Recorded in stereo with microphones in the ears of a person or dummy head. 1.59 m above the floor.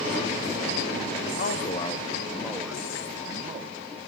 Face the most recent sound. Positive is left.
turn(degrees=-25)  # may be behind; listen again after turning